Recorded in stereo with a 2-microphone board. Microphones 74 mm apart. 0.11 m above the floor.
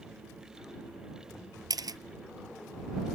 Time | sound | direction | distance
1.7 | a camera shutter | 60° right (ahead or behind) | ?